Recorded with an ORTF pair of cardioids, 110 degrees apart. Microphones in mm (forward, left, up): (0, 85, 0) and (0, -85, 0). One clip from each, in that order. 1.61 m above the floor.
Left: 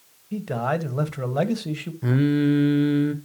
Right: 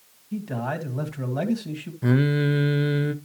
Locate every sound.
0.3 s a man speaking: 30° left, 1.6 m
2.0 s singing: 10° right, 0.8 m